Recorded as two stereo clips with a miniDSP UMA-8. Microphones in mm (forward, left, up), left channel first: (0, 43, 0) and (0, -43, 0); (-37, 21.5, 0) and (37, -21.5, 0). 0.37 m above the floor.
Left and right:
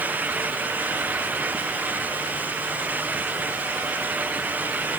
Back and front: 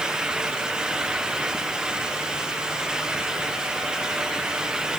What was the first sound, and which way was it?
Only background noise.